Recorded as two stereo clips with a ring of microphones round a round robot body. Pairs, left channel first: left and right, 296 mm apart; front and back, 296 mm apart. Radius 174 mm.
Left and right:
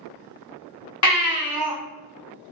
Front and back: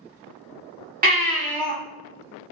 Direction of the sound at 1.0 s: 120° left.